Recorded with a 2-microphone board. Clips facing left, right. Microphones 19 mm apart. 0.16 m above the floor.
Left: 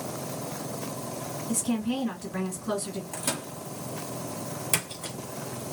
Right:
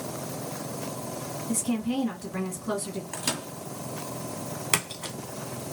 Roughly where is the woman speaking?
Centre.